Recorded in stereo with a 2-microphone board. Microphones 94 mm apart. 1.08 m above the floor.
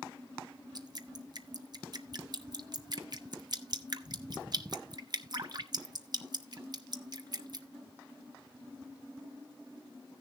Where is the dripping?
45° right (ahead or behind), 0.9 m.